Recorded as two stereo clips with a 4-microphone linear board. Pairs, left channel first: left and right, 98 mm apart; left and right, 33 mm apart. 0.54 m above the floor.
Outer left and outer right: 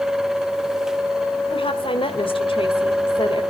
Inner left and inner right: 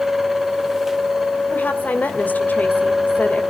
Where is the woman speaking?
65° left (ahead or behind), 2.5 m.